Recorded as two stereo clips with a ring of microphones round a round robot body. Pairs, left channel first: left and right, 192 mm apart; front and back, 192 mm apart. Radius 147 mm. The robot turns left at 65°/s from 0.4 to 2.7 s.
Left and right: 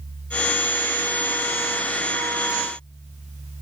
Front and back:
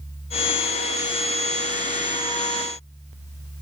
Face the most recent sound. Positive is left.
No sound to turn to.